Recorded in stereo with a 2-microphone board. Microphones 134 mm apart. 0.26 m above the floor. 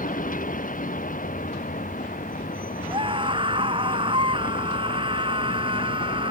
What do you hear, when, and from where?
0.0 s a vehicle: 85° left
2.9 s a scream: 40° right (ahead or behind)